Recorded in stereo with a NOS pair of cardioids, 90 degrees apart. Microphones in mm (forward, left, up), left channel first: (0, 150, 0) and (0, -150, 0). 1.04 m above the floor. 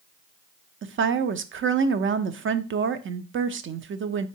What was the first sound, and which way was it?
A woman speaking, 40° right.